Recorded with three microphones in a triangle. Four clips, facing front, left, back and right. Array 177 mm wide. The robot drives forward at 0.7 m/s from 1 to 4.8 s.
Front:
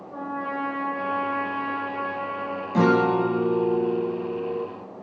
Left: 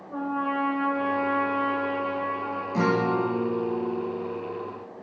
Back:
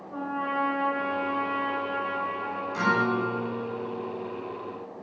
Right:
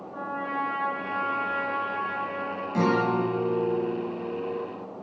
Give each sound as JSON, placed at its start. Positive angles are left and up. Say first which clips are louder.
{"t": 0.1, "sound": "a trumpet", "louder": "left 4 dB, even", "azimuth_deg": 75, "distance_m": 7.5}
{"t": 2.7, "sound": "a guitar", "louder": "even, front 6 dB", "azimuth_deg": 5, "distance_m": 3.0}